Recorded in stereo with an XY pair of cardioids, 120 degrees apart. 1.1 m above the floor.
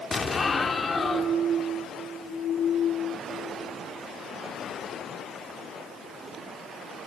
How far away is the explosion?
About 1.5 m.